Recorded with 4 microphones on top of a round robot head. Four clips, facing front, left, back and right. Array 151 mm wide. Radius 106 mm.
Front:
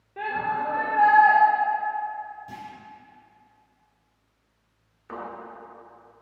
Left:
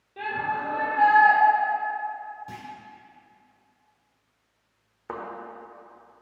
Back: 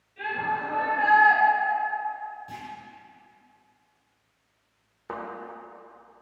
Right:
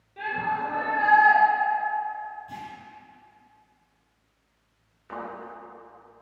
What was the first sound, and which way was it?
A shout, 20° left.